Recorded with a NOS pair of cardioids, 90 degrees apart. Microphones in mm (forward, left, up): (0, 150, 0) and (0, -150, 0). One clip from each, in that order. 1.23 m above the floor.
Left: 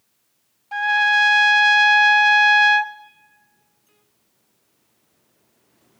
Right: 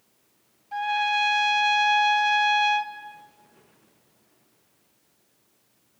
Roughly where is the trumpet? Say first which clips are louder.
Left 7 dB; ahead left.